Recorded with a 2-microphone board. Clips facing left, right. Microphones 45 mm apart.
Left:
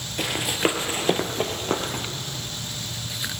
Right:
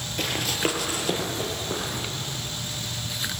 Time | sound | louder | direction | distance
0.2 | running footsteps | left 3 dB | 5° left (ahead or behind) | 1.1 m